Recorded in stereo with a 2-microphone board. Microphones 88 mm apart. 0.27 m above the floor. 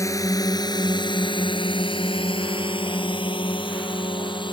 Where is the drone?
40° left (ahead or behind); by 4.5 s 65° left (ahead or behind).